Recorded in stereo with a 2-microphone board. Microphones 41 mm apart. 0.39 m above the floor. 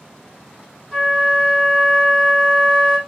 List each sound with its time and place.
0.9 s a flute: 10° left (ahead or behind), 1.6 m